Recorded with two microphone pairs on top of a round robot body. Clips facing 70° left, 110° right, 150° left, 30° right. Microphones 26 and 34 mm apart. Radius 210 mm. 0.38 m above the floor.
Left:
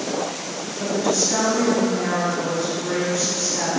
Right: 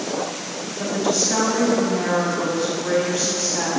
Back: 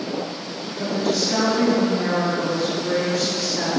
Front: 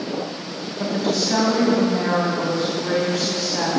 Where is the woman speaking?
40° right, 3.5 m.